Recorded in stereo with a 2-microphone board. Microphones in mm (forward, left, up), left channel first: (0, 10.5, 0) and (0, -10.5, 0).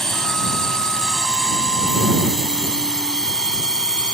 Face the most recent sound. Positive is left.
turn(degrees=40)  # may be behind; listen again after turning